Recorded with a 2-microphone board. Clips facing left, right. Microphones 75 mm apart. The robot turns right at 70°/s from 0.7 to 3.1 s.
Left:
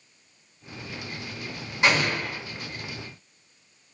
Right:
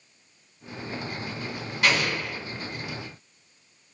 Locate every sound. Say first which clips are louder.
1.8 s an explosion: left 2 dB; 25° left, 1.4 m; by 2.4 s 65° left, 1.4 m